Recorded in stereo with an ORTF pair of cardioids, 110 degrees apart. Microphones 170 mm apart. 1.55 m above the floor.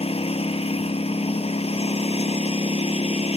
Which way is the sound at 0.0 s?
35° left.